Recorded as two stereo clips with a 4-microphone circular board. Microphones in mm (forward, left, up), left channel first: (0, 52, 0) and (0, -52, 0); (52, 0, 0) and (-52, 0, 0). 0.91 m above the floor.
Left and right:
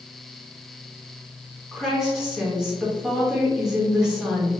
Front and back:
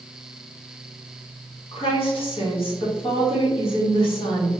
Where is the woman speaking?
5° right, 1.4 m.